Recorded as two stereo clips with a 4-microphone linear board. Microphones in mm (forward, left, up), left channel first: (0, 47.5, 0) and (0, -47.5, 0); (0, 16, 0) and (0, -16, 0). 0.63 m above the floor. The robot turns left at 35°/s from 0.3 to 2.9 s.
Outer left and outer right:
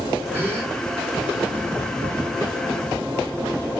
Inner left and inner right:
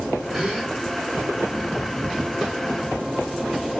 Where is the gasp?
20° right (ahead or behind), 2.5 m; by 0.7 s 35° right (ahead or behind), 2.5 m.